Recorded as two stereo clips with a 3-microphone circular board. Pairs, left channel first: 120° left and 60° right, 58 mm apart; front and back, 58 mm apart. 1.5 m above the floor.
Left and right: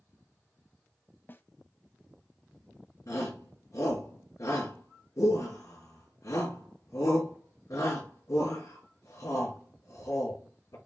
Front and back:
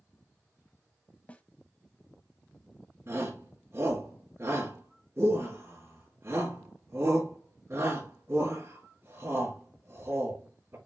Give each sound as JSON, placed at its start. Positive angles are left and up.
{"t": 1.3, "sound": "a snare drum", "azimuth_deg": 65, "distance_m": 0.9}
{"t": 3.1, "sound": "a shout", "azimuth_deg": 140, "distance_m": 3.5}